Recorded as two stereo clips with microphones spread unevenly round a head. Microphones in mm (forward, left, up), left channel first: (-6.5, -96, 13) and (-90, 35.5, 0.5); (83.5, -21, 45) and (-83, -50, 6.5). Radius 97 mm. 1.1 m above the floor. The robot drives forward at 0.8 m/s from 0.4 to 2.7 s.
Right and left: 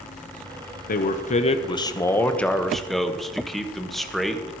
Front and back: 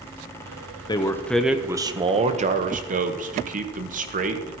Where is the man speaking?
60° right, 1.0 m; by 4.5 s 150° right, 1.4 m.